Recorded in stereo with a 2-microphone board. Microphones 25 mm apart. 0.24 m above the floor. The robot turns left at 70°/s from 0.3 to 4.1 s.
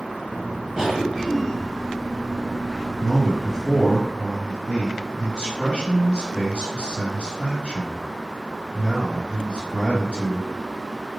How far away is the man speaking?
About 1.7 m.